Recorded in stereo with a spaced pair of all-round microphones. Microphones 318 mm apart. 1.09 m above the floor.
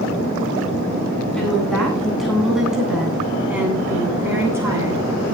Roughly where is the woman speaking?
Centre.